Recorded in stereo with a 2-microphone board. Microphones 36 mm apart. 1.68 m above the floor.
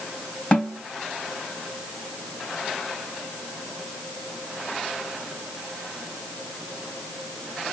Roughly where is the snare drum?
Left.